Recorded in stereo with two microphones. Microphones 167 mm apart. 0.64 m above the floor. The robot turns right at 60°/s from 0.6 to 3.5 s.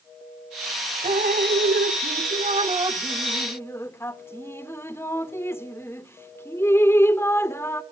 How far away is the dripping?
About 0.8 m.